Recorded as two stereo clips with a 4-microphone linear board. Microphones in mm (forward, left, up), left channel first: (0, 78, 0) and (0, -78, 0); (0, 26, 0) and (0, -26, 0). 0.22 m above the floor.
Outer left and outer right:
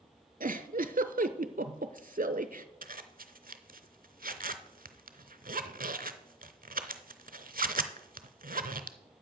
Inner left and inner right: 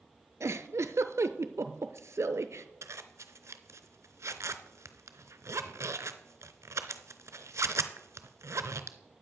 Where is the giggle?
65° right (ahead or behind), 0.6 m.